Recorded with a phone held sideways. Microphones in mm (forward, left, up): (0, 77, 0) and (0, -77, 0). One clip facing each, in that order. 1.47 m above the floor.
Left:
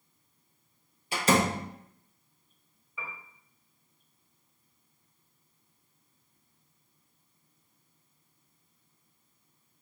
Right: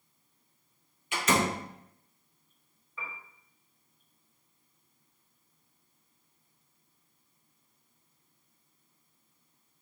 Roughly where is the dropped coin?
No dropped coin in this recording.